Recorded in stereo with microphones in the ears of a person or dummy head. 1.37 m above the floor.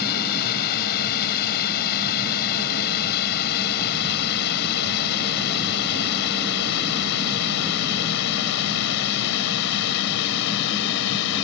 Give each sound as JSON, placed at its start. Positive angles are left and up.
{"t": 0.0, "sound": "a drone", "side_deg": 55}